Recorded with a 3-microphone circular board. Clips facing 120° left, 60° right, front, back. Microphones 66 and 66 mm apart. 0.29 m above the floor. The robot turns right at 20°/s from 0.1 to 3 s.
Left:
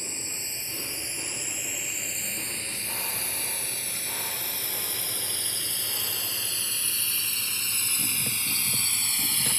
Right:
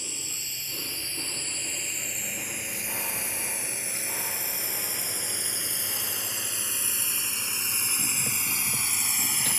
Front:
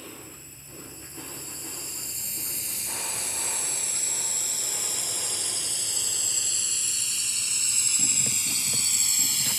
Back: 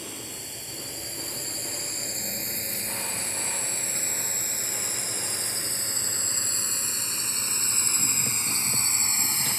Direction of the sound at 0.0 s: 175° left.